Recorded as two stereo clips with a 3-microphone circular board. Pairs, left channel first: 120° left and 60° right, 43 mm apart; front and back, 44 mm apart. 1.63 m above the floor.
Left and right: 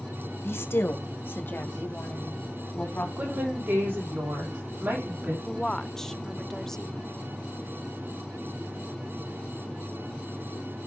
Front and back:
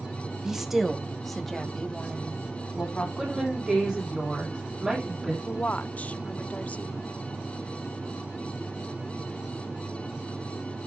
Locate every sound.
0.4 s a woman speaking: 100° left, 1.4 m; by 3.1 s 70° left, 2.5 m
3.2 s a woman speaking: 95° right, 9 m
5.5 s a woman speaking: 45° left, 0.6 m